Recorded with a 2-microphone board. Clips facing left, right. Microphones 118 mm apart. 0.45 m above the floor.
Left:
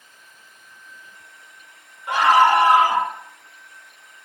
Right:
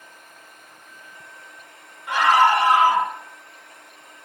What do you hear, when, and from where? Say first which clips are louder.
2.1 s a scream: left 2 dB; 35° left (ahead or behind), 1.1 m